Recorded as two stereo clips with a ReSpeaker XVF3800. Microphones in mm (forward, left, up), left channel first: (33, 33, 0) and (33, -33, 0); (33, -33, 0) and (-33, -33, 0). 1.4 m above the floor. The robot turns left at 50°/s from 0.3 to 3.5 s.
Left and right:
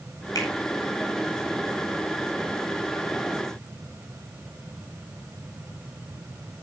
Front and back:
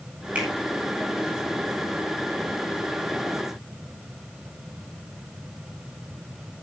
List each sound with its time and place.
0.3 s a finger snap: 110° left, 9.5 m; by 0.5 s 105° left, 9.5 m